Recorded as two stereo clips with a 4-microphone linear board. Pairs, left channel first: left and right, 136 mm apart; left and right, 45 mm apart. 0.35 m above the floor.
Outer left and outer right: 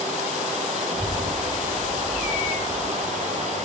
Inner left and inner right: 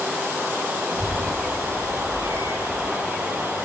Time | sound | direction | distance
0.9 | a child speaking | centre (ahead or behind) | 3.5 m